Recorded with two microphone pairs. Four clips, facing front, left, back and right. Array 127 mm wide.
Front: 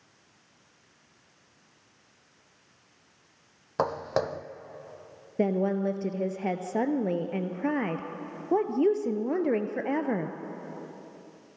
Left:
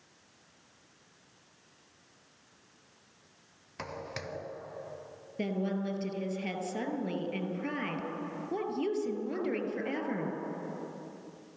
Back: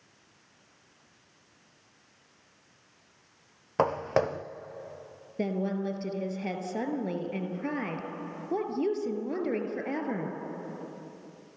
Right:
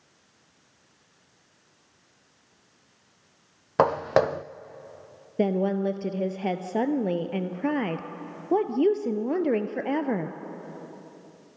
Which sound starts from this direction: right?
Footsteps, at 3.8 s.